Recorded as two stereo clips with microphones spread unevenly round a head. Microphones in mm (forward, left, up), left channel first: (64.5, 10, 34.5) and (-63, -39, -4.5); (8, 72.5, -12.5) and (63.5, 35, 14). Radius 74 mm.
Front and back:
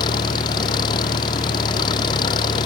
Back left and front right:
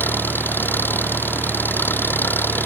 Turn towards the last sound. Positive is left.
turn(degrees=85)